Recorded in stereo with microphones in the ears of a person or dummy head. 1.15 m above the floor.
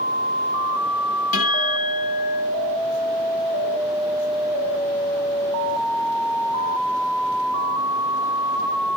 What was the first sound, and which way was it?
A guitar, 45° left (ahead or behind).